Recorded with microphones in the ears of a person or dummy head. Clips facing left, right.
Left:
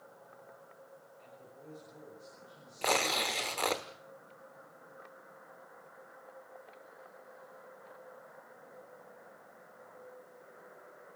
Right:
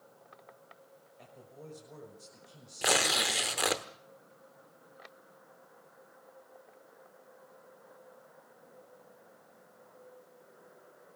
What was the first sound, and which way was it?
A man speaking, 65° right (ahead or behind).